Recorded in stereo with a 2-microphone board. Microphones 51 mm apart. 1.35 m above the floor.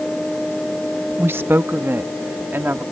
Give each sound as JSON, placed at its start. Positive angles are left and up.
{"t": 1.2, "sound": "a woman speaking", "side_deg": -50}